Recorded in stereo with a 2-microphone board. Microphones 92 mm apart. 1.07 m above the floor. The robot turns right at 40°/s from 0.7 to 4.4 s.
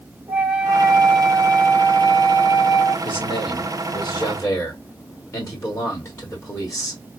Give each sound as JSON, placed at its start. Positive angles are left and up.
{"t": 0.3, "sound": "a flute", "azimuth_deg": -25, "distance_m": 1.5}
{"t": 3.0, "sound": "a man speaking", "azimuth_deg": 90, "distance_m": 2.0}